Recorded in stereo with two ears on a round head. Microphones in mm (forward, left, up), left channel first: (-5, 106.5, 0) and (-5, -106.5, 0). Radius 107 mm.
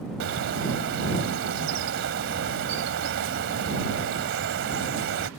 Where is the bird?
55° right (ahead or behind).